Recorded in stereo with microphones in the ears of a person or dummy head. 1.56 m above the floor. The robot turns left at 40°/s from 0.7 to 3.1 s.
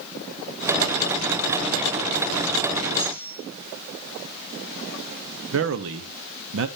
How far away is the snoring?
No snoring in this recording.